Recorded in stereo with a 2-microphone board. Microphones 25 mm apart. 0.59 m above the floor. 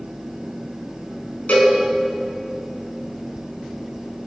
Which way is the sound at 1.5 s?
85° left.